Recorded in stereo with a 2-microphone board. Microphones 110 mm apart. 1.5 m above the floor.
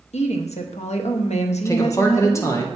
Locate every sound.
0.1 s a woman speaking: 75° left (ahead or behind), 0.8 m
1.6 s a man speaking: 25° left (ahead or behind), 1.1 m